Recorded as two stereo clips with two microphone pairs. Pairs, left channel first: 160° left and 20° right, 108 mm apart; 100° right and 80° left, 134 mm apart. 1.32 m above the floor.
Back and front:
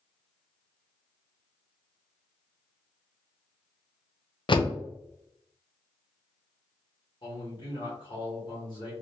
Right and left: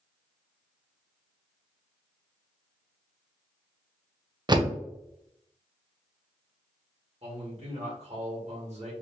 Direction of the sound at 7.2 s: 120° left.